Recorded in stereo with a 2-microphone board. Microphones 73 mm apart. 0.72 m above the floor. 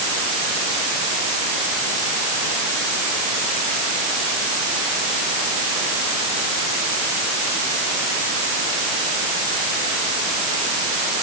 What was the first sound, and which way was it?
Only background noise.